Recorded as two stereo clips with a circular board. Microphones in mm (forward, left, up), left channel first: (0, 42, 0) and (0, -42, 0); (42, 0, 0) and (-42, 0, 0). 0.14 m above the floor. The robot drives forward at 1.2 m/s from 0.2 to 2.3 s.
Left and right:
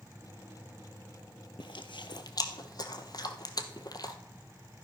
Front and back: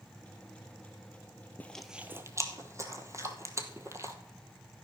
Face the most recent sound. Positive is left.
turn(degrees=130)